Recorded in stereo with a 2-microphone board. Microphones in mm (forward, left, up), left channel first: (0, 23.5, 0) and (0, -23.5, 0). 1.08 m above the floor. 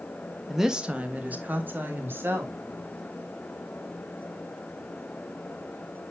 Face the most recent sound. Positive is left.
turn(degrees=-55)  # may be behind; listen again after turning